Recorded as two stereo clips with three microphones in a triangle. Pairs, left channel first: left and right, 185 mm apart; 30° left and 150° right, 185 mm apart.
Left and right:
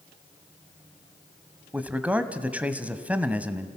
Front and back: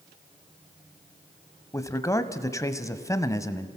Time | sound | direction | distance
1.7 | a man speaking | 20° right | 1.0 m